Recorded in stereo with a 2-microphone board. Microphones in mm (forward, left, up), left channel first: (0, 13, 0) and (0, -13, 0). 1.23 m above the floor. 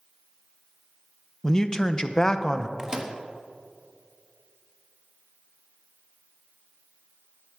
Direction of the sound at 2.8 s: 20° right (ahead or behind).